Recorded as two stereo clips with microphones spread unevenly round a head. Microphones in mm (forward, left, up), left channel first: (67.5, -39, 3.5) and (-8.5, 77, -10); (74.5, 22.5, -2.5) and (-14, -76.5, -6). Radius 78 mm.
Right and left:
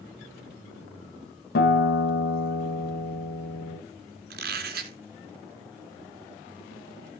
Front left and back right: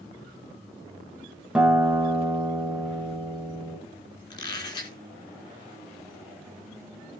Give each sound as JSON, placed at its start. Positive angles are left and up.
{"t": 1.6, "sound": "a guitar", "azimuth_deg": -50, "distance_m": 2.5}
{"t": 4.3, "sound": "a squeak", "azimuth_deg": 115, "distance_m": 2.5}